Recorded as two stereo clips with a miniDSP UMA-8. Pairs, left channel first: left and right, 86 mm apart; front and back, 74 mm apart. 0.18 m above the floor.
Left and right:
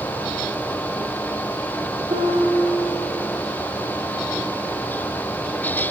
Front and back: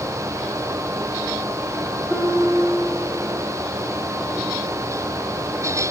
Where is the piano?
80° right, 6 m.